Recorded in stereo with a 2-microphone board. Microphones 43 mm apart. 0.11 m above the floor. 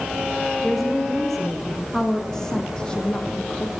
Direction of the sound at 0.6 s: 5° left (ahead or behind).